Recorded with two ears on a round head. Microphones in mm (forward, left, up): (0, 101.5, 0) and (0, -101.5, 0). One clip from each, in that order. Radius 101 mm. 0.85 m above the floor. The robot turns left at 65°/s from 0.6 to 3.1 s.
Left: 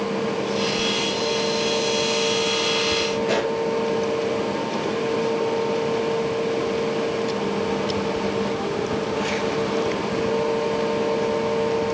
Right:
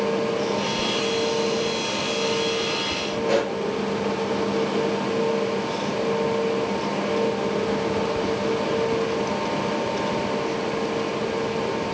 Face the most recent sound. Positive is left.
turn(degrees=20)  # may be behind; listen again after turning